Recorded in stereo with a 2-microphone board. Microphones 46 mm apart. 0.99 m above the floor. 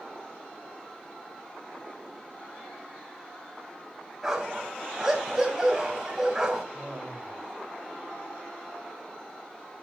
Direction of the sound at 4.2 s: 10° right (ahead or behind).